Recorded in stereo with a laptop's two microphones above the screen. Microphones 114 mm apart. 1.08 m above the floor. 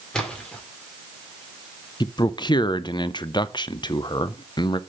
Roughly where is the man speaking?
Left.